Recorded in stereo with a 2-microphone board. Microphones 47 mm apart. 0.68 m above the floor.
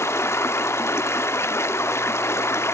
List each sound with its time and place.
0.0 s running water: 70° left (ahead or behind), 0.9 m